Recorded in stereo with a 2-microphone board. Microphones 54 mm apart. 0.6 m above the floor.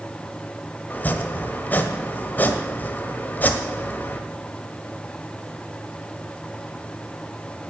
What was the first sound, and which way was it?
Chopping, 30° left (ahead or behind).